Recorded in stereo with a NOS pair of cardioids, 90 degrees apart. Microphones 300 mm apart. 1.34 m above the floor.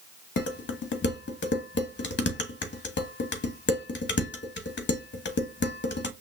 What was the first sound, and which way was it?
Dishes clattering, 40° left.